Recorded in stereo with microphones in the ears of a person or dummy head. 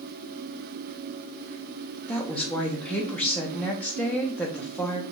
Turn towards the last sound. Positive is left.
turn(degrees=10)  # may be behind; listen again after turning